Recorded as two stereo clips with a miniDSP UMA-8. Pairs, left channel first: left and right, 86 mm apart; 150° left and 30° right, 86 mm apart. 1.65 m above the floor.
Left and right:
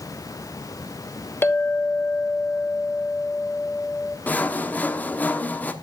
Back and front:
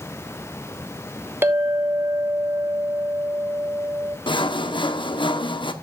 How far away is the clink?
About 1.3 m.